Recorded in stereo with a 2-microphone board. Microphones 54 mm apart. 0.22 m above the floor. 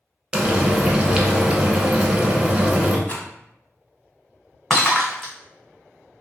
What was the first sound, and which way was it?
Frying, 15° right (ahead or behind).